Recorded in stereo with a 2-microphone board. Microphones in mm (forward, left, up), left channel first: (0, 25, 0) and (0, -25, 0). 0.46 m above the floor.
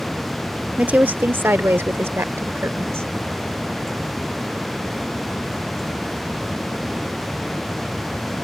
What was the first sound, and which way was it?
A woman speaking, 30° right (ahead or behind).